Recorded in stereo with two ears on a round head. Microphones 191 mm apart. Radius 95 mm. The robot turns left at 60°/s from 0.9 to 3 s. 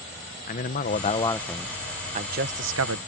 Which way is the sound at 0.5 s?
40° left.